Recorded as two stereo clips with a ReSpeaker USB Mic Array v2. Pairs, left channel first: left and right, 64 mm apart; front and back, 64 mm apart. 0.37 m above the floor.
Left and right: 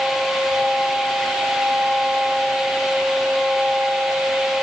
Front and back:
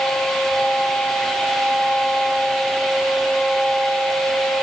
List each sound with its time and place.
Only background noise.